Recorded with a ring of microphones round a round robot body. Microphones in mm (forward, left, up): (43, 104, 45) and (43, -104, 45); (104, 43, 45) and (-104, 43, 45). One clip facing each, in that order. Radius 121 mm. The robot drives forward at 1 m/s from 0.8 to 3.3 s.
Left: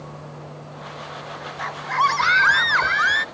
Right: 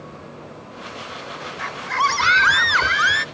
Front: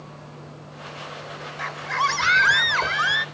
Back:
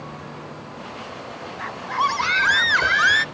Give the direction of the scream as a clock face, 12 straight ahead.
1 o'clock.